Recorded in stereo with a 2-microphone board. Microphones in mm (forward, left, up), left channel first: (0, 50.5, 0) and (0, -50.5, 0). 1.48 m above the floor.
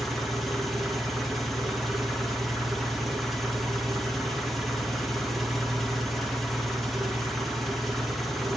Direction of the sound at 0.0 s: Centre (ahead or behind).